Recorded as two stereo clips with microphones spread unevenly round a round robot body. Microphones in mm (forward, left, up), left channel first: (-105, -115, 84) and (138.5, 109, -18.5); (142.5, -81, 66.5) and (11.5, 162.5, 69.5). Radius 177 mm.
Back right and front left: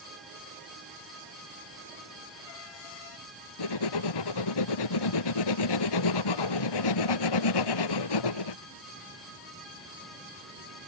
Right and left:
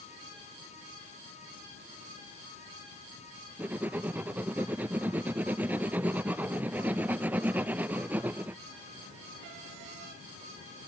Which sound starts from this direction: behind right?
Writing, at 3.6 s.